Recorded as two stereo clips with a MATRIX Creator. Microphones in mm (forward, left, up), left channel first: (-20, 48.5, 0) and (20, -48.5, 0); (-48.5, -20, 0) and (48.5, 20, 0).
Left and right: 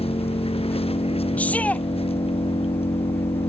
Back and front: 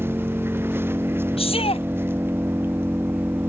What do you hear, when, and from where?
0.0 s an engine running: 90° left
1.4 s a shout: 170° right